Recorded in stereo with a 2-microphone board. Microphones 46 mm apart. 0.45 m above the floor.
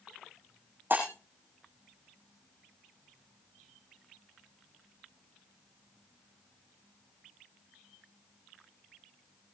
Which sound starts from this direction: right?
Breaking glass, at 0.9 s.